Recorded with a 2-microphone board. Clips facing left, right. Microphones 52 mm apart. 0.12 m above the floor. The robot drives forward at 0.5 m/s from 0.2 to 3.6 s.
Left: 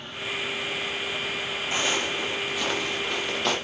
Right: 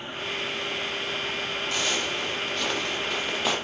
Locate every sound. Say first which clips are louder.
1.7 s footsteps: left 3 dB; 25° left (ahead or behind), 3 m; by 3.5 s 5° right (ahead or behind), 4 m